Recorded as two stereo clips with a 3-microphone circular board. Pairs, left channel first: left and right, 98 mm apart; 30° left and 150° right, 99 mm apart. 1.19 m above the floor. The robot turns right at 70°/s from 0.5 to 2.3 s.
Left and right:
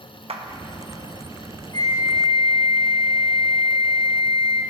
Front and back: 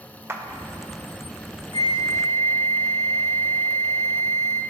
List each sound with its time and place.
0.3 s a clap: 85° right, 0.9 m
1.7 s a flute: 45° left, 2.5 m; by 4.6 s 85° left, 2.5 m